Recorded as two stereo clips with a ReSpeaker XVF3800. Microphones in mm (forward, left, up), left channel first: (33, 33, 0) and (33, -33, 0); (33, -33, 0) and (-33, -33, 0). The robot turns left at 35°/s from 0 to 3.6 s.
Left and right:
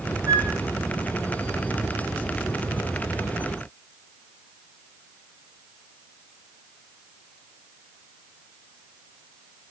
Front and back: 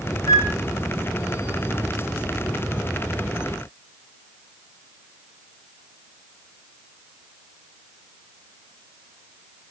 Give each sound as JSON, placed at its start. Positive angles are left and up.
{"t": 0.3, "sound": "a flute", "azimuth_deg": -40, "distance_m": 3.0}